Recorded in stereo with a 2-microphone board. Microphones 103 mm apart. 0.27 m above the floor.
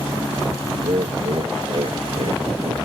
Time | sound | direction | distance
0.8 | laughter | 60° right (ahead or behind) | ?